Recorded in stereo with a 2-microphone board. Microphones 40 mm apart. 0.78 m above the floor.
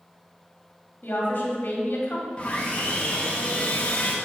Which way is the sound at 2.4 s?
25° left (ahead or behind).